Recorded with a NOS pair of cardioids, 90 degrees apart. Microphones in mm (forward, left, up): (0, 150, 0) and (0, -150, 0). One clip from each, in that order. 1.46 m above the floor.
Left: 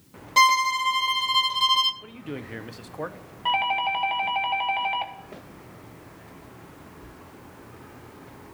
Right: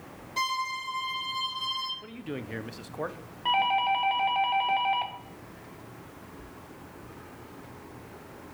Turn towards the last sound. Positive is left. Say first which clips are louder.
# left 1 dB
turn(degrees=15)